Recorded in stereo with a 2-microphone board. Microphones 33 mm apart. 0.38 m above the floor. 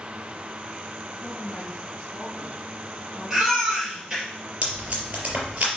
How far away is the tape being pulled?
About 3.5 m.